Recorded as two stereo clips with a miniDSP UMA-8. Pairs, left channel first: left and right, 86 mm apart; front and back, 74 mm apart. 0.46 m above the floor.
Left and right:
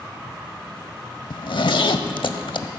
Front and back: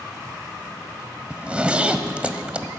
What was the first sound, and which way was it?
A zipper, 105° left.